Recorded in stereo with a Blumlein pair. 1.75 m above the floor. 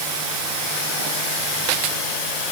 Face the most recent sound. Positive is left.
No sound to turn to.